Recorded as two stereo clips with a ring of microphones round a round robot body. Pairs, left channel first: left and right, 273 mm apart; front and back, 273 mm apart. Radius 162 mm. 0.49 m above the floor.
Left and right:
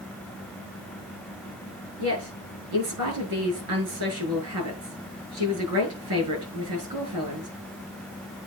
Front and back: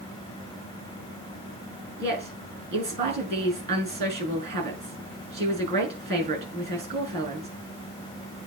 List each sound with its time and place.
2.0 s a woman speaking: 125° right, 6.5 m